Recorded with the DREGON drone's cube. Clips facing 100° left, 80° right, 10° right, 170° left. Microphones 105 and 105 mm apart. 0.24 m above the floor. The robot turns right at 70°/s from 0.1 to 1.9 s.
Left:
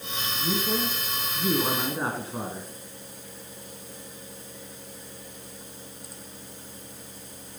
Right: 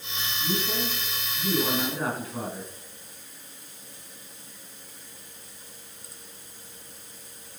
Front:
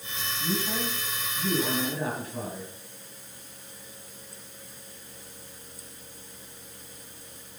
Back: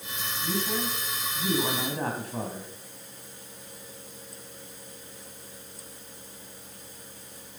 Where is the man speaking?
40° left, 2 m; by 2.7 s 145° left, 2 m.